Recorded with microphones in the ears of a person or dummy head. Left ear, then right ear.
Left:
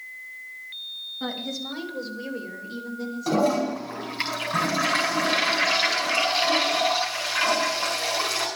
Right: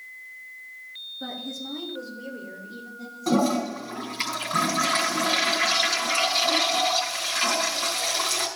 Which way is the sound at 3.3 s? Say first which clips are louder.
Left 1 dB; centre (ahead or behind).